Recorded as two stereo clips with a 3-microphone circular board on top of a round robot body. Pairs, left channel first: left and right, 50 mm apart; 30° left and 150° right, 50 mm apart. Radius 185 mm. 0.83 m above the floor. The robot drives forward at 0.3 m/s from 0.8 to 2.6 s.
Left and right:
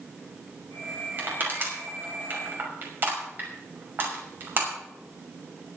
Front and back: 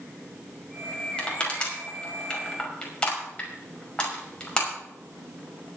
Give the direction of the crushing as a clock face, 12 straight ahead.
1 o'clock.